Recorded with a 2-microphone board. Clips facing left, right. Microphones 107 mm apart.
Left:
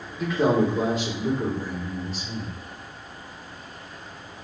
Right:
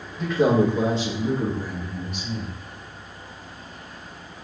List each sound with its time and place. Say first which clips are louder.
0.2 s a man speaking: right 2 dB; 5° left (ahead or behind), 0.7 m; by 2.5 s 65° right (ahead or behind), 1.4 m